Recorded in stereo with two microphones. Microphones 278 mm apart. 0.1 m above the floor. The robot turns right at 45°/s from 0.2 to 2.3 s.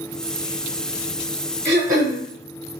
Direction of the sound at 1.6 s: 40° right (ahead or behind).